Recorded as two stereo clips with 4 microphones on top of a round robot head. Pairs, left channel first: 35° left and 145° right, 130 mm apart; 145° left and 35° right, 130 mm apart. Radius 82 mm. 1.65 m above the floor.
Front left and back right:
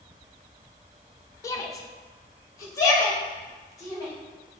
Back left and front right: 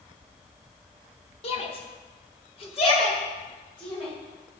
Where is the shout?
100° left, 0.9 m.